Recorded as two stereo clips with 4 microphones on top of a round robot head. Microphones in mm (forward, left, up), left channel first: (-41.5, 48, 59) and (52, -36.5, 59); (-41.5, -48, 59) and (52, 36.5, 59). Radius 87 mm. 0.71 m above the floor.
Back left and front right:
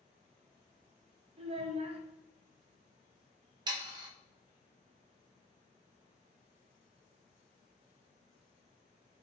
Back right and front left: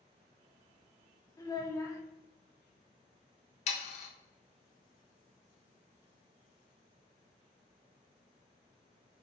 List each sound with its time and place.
1.4 s a child speaking: 75° right, 0.9 m
3.7 s sawing: 100° right, 0.6 m